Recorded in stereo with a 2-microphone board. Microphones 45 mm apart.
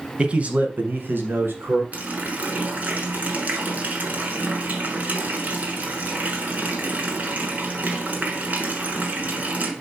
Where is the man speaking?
25° right (ahead or behind), 1.0 m; by 1.8 s 60° right (ahead or behind), 2 m.